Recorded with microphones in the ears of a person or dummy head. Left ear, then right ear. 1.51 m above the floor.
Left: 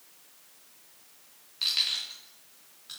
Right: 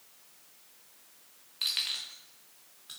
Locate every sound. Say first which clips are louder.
1.6 s keys jangling: left 4 dB; 15° right (ahead or behind), 1.4 m